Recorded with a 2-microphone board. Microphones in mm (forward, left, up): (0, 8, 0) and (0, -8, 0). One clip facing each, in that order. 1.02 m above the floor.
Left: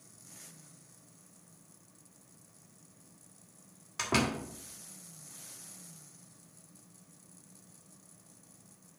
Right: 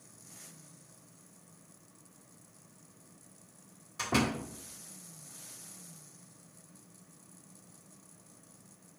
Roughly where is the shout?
I don't hear a shout.